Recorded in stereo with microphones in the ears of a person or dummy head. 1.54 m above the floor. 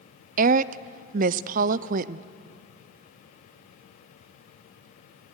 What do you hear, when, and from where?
0.4 s a woman speaking: 50° right (ahead or behind), 0.6 m